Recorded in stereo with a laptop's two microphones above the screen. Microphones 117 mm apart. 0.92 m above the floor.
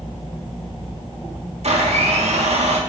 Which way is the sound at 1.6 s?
70° right (ahead or behind).